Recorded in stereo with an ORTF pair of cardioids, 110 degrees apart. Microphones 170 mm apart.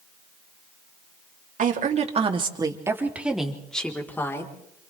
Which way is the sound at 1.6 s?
50° right.